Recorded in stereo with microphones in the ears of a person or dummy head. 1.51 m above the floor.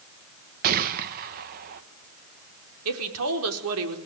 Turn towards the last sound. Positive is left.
turn(degrees=-80)